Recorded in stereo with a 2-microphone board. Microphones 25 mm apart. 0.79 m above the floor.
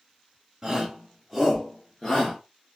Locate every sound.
0.6 s a shout: 25° right (ahead or behind), 1.0 m; by 2.4 s 30° left (ahead or behind), 1.1 m